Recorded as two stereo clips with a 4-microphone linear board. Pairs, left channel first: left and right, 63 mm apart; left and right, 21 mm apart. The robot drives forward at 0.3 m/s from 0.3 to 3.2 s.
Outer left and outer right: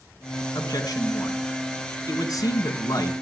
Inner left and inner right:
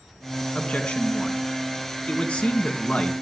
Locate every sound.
0.6 s a man speaking: 75° left (ahead or behind), 3.5 m; by 3.1 s 70° left (ahead or behind), 4 m